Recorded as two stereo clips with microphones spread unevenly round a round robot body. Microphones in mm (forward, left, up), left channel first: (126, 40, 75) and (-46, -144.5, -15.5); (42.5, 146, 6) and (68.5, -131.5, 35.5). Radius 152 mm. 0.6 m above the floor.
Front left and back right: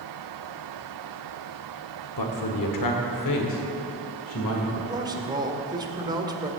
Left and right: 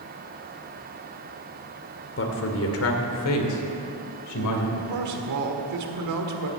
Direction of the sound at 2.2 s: 55° left.